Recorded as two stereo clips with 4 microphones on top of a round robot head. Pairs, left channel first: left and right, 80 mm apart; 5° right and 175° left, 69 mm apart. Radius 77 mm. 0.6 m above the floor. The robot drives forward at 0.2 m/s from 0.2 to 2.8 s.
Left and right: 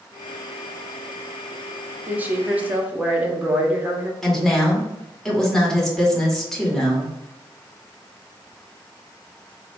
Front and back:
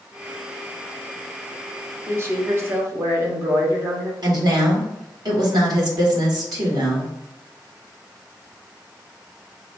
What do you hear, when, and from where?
2.1 s a woman speaking: 150° right, 1.0 m; by 4.1 s 155° right, 1.1 m
4.2 s a woman speaking: 175° left, 2.0 m